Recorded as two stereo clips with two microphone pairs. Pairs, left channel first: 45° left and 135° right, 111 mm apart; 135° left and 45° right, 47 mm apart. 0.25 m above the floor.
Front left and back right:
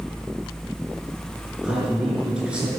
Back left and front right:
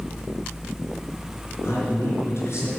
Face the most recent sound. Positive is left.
turn(degrees=145)